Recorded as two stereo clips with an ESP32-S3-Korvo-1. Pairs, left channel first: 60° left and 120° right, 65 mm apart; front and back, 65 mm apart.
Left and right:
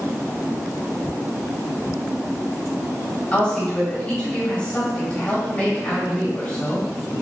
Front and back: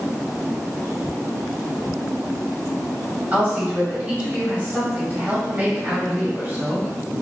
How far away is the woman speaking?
About 1.7 m.